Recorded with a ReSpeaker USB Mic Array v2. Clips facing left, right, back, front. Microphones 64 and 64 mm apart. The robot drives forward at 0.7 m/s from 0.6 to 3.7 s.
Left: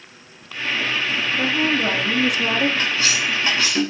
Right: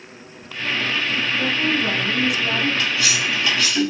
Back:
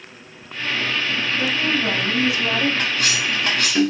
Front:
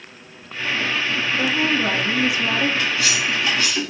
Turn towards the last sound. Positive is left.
turn(degrees=150)